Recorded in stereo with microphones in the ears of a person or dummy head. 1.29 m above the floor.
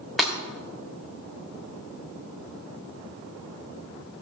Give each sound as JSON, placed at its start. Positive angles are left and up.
{"t": 0.2, "sound": "breaking glass", "side_deg": 0, "distance_m": 3.0}